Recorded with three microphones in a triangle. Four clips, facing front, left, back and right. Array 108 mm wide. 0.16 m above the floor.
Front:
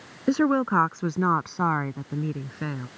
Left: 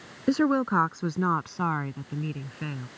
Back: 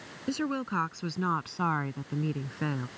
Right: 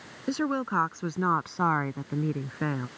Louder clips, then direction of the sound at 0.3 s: Left 5 dB, front 10 dB; 30° left.